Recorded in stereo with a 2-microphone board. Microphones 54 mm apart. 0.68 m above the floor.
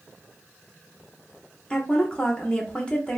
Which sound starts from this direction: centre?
A woman speaking, at 1.7 s.